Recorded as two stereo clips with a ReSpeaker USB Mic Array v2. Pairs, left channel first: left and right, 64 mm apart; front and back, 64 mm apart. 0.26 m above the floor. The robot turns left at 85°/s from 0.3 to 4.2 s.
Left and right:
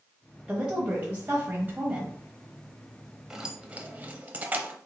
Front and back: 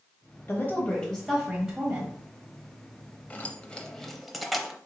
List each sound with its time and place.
0.5 s a woman speaking: 10° right, 1.0 m; by 2.1 s 150° right, 1.0 m
3.3 s keys jangling: 15° right, 0.6 m; by 4.8 s 90° right, 0.6 m